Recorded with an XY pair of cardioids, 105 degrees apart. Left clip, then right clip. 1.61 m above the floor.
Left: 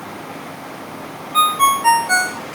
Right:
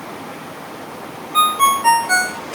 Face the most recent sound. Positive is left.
turn(degrees=0)